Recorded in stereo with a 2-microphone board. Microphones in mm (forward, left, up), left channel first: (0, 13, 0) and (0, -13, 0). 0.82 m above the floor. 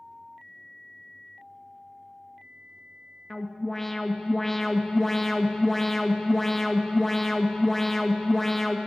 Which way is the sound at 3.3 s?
10° left (ahead or behind).